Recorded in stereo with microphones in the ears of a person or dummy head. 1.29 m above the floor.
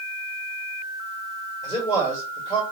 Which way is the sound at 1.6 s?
25° left (ahead or behind).